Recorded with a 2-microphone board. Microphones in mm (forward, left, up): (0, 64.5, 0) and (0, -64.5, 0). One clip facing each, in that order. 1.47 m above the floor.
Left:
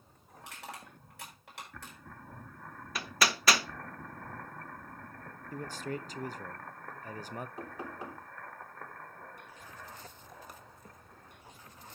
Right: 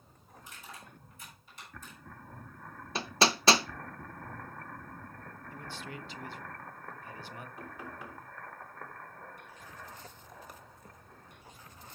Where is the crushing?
80° left, 7 m.